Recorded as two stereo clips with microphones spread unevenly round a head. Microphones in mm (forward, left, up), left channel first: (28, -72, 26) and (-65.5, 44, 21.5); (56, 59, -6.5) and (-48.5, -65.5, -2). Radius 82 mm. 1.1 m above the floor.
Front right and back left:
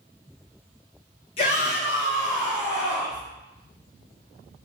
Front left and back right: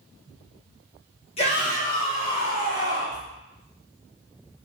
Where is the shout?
Straight ahead, 1.0 m; by 3.2 s 5° left, 2 m.